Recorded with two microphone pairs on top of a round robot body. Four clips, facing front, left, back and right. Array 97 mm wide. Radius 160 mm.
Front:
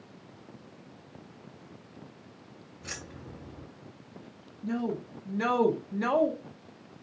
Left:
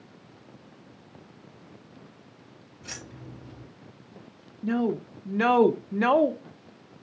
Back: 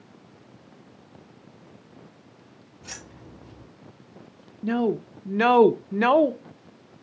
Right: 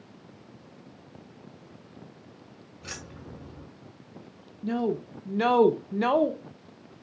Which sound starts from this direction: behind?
A woman speaking, at 4.6 s.